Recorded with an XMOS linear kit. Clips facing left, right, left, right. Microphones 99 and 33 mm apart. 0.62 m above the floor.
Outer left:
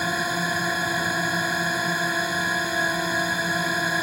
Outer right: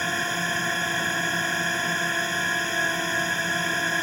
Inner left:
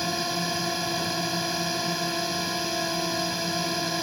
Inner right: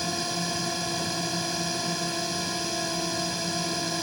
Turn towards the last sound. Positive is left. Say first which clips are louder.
# outer left 2 dB, inner left 2 dB
turn(degrees=10)  # may be behind; listen again after turning